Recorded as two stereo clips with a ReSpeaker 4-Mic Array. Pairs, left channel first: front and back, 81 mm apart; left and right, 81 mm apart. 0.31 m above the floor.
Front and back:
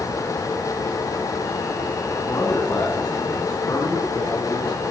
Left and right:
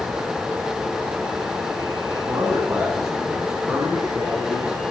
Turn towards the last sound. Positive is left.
turn(degrees=-20)